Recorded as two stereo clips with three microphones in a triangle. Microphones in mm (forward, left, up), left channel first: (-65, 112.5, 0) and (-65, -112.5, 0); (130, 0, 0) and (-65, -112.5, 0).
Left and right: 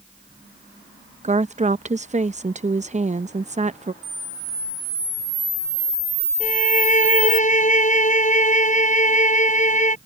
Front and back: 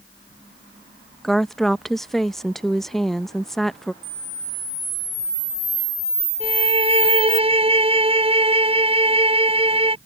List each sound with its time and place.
1.2 s a woman speaking: 60° right
4.0 s a camera shutter: 145° right
6.4 s a violin: 145° left